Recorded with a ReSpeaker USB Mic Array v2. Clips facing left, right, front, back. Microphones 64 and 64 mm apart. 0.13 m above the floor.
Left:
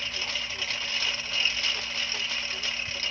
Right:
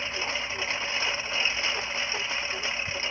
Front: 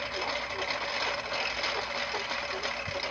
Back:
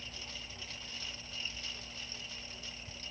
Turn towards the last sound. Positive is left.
turn(degrees=-25)